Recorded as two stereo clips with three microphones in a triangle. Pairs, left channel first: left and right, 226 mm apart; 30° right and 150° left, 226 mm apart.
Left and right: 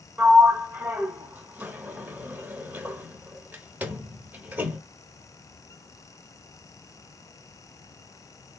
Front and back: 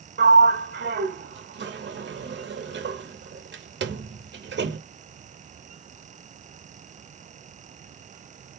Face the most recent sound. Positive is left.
turn(degrees=-170)